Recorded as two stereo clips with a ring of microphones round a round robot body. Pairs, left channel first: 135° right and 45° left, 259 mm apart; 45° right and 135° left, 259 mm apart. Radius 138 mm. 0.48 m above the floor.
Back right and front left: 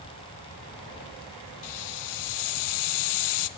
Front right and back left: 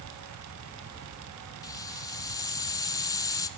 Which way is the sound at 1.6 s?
120° right.